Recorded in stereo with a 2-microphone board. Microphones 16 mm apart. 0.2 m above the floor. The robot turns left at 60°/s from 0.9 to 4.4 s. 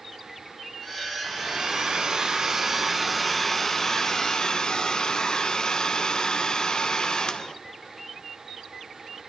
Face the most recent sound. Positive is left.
turn(degrees=120)